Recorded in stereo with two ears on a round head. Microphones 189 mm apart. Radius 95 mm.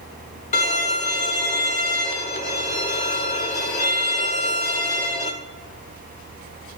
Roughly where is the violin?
Left.